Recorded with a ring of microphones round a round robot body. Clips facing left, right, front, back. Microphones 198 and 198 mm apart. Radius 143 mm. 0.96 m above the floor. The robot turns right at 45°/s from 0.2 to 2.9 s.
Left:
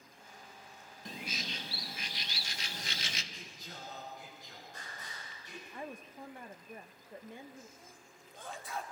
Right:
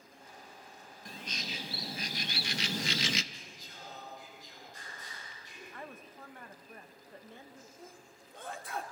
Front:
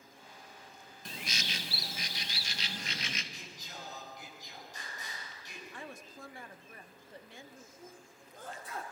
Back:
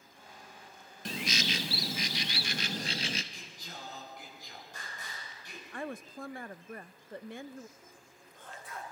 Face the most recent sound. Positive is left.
turn(degrees=-65)